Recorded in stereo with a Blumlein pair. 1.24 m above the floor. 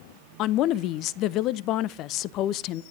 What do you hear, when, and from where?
0.4 s a woman speaking: 35° left, 0.7 m